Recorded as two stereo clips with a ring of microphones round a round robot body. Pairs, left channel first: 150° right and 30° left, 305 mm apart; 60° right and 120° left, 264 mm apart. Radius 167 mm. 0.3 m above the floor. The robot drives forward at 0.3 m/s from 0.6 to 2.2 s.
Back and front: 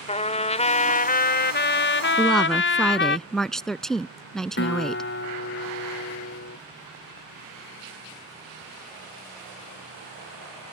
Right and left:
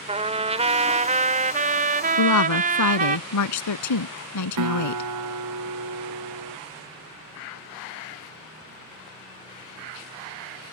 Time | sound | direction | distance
0.1 | a trumpet | 160° left | ?
2.2 | a woman speaking | 60° right | ?
4.6 | a guitar | 155° left | ?